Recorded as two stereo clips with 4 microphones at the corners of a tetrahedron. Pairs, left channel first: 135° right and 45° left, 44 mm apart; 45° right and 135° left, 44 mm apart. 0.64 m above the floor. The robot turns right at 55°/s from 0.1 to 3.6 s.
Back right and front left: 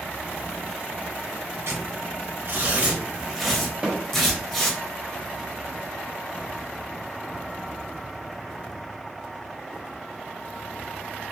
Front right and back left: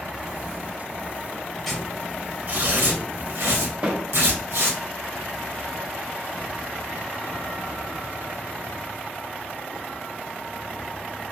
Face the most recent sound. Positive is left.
turn(degrees=105)